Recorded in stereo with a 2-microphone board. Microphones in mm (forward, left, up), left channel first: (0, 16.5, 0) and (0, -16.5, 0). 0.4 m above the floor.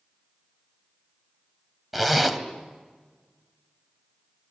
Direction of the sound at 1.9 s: Centre (ahead or behind).